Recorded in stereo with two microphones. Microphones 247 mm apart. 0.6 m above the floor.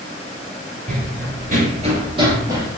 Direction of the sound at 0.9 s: 40° right (ahead or behind).